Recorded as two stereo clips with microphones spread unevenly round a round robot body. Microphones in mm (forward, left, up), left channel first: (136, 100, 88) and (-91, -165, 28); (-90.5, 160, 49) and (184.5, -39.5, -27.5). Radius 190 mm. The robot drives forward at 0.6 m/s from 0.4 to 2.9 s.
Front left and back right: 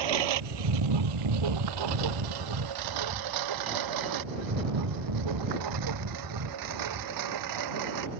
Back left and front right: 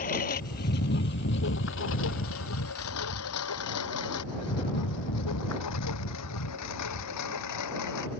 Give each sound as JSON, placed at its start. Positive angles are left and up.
{"t": 0.0, "sound": "a lawn mower", "azimuth_deg": -145}